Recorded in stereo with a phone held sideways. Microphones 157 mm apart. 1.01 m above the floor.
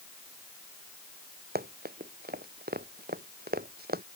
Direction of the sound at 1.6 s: 85° right.